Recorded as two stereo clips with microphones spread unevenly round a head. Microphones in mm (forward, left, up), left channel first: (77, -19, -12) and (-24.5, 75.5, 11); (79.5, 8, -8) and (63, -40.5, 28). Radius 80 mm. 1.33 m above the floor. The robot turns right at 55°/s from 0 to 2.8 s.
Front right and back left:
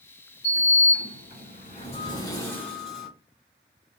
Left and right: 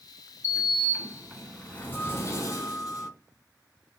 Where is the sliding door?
80° right, 1.6 m; by 3.1 s 50° left, 1.6 m.